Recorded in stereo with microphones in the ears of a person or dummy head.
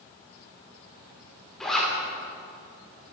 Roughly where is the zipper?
Centre.